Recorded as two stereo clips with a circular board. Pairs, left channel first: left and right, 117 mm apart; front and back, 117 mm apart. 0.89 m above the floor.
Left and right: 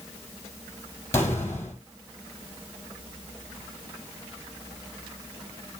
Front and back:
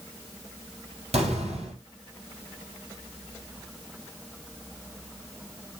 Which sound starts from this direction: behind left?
An explosion, at 1.1 s.